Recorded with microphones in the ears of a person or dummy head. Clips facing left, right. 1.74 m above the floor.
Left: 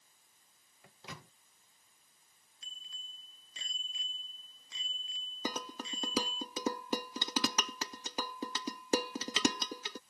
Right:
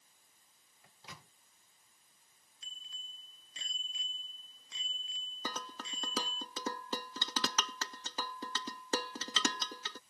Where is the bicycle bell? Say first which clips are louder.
Even; centre (ahead or behind).